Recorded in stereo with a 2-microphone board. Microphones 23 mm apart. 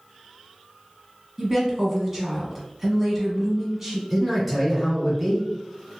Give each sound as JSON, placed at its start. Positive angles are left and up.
{"t": 1.4, "sound": "a woman speaking", "side_deg": -10, "distance_m": 1.1}
{"t": 4.1, "sound": "a man speaking", "side_deg": 5, "distance_m": 1.4}